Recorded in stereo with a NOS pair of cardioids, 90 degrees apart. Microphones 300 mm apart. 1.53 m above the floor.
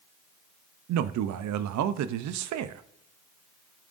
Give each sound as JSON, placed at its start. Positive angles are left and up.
{"t": 0.9, "sound": "a man speaking", "azimuth_deg": -65, "distance_m": 0.6}